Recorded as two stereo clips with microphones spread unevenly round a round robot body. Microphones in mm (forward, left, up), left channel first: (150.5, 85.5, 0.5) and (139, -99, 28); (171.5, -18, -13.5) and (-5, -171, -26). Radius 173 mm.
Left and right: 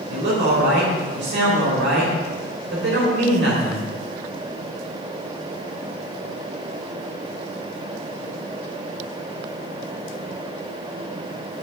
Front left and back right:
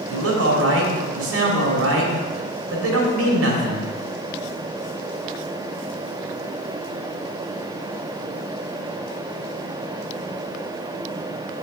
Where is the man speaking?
140° right, 2.5 m.